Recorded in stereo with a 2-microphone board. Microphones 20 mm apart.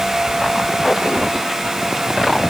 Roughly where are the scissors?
I don't hear scissors.